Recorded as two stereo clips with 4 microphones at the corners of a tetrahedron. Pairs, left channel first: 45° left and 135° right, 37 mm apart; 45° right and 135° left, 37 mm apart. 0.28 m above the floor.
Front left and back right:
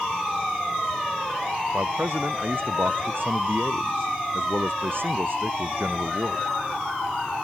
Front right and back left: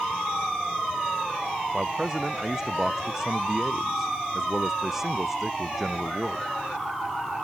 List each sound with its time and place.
1.7 s a man speaking: 150° right; by 6.5 s 140° right